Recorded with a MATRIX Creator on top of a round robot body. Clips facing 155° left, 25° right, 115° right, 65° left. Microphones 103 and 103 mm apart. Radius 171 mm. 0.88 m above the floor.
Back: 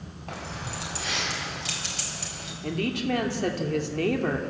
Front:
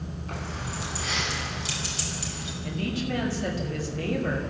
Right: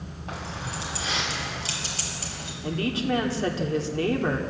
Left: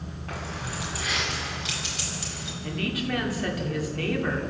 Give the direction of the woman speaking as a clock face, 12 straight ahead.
6 o'clock.